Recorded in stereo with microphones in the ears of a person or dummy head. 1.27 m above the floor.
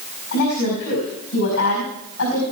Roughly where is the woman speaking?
Left.